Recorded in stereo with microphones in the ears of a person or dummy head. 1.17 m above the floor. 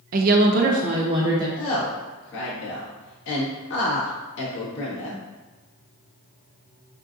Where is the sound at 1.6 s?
65° left (ahead or behind), 1.6 m.